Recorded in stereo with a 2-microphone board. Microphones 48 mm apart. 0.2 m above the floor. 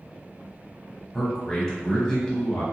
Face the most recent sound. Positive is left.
turn(degrees=10)  # may be behind; listen again after turning